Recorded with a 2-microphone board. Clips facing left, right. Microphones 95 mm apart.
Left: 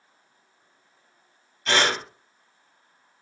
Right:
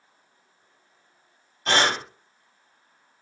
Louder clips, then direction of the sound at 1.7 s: Right 1 dB; 40° right (ahead or behind).